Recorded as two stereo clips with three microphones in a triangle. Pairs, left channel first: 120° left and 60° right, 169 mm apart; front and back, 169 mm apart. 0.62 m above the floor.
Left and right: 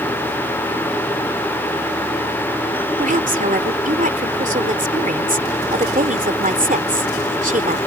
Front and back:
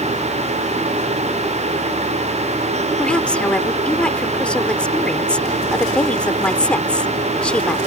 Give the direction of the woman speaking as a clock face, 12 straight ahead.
3 o'clock.